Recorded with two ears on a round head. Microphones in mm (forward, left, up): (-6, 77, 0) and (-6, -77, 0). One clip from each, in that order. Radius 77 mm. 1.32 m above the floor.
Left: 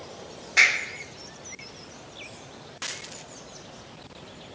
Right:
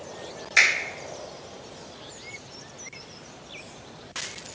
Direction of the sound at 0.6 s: 60° right (ahead or behind).